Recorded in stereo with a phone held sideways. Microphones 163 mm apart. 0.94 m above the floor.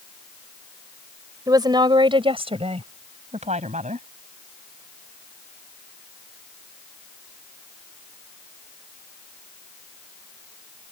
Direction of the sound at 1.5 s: 25° right (ahead or behind).